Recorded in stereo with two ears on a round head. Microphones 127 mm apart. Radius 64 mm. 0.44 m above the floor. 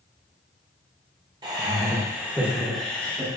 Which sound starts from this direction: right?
Laughter, at 1.4 s.